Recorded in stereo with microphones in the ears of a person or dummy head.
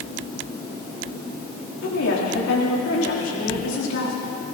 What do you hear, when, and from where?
1.8 s a woman speaking: 85° left, 5 m